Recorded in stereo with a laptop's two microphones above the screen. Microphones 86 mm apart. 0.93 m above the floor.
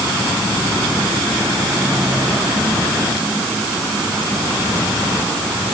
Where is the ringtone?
I don't hear a ringtone.